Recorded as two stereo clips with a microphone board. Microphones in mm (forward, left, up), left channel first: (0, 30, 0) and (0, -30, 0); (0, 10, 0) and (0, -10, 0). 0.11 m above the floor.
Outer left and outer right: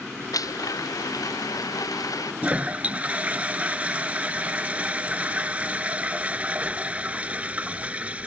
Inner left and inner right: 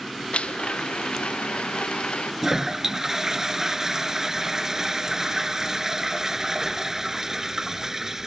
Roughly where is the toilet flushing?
Right.